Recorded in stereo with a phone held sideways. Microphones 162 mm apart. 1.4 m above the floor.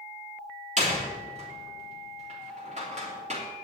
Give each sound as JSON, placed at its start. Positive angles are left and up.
{"t": 0.8, "sound": "a door slam", "side_deg": -45, "distance_m": 3.0}